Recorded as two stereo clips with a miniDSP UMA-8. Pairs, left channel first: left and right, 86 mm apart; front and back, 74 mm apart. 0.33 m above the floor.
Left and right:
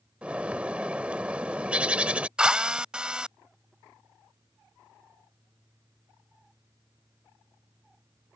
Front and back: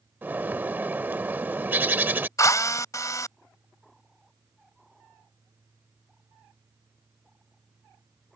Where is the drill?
15° right.